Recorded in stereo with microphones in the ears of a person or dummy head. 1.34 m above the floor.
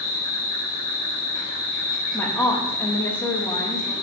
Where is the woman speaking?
10° left (ahead or behind), 1.1 m.